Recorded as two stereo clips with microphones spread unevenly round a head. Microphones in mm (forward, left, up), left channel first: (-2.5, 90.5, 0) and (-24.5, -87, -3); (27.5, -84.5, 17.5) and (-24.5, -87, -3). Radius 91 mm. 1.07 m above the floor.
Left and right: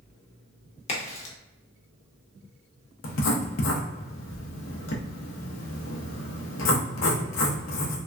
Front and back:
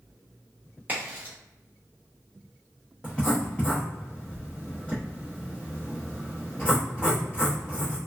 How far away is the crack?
About 0.8 m.